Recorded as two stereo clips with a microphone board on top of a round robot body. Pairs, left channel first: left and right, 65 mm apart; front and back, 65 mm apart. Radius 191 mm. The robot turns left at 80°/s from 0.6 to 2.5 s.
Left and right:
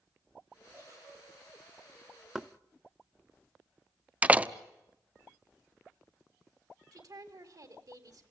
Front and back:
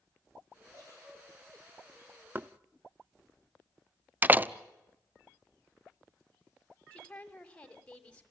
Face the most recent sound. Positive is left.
turn(degrees=-75)